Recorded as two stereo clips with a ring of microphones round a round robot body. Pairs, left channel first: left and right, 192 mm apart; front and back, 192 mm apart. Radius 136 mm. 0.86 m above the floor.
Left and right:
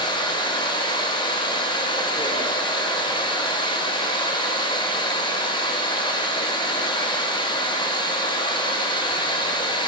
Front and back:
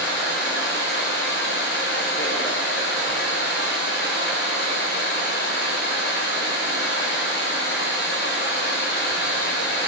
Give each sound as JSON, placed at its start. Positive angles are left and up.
{"t": 0.0, "sound": "running water", "azimuth_deg": 25, "distance_m": 3.0}